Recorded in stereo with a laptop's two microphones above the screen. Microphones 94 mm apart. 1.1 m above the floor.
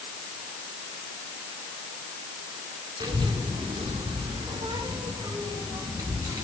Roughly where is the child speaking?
Right.